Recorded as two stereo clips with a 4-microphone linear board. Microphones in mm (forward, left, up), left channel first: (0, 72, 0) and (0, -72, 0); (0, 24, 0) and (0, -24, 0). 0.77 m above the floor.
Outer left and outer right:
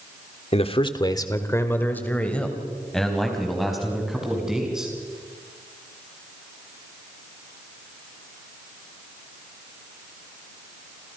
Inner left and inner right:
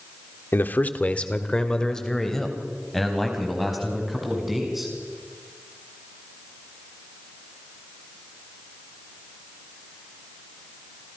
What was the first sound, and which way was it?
A man speaking, 50° left (ahead or behind).